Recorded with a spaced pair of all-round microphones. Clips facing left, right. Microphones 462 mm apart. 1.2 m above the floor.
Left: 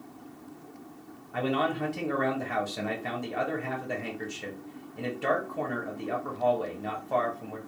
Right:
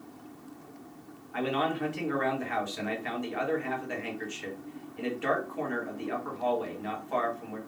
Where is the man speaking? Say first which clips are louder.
Left 1 dB; 60° left (ahead or behind), 0.9 m.